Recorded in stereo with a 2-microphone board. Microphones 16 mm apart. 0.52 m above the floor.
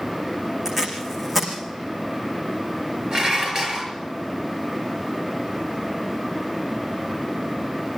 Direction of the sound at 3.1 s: 30° right (ahead or behind).